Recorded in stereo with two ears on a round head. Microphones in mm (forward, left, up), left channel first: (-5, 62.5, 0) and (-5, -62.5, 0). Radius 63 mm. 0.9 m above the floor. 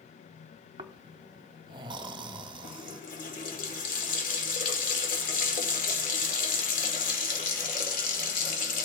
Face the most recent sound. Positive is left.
turn(degrees=65)  # may be behind; listen again after turning